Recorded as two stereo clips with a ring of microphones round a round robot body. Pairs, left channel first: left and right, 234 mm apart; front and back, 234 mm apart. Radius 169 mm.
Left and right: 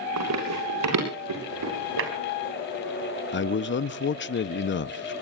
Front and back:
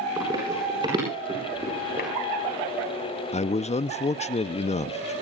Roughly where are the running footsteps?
Right.